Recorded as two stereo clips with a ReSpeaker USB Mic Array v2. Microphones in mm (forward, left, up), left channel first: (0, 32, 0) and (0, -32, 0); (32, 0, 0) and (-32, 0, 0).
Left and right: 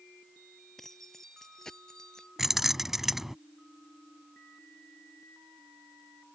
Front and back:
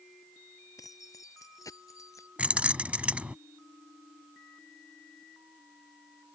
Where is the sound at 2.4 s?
165° right.